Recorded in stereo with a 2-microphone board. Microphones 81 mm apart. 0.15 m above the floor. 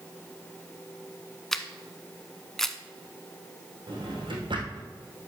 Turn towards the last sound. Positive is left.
turn(degrees=-75)  # may be behind; listen again after turning